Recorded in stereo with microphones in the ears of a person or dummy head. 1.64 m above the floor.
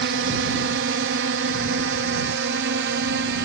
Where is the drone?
65° right (ahead or behind); by 3.5 s 60° right (ahead or behind).